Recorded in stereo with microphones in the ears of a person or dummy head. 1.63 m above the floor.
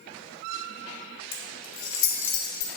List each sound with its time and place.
1.3 s keys jangling: 65° left (ahead or behind), 2 m